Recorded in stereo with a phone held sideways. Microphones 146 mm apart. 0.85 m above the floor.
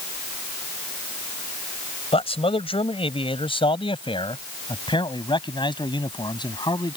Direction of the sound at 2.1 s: 40° left (ahead or behind).